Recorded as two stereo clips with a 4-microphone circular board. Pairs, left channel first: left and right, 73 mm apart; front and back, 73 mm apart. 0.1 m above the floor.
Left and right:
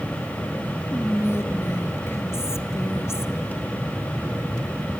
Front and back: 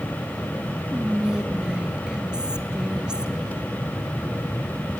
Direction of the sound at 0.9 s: 110° left.